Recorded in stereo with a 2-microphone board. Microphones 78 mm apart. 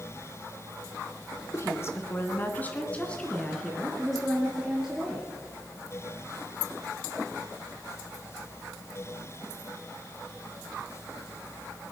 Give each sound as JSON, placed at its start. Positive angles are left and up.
{"t": 1.5, "sound": "a woman speaking", "side_deg": 35, "distance_m": 1.8}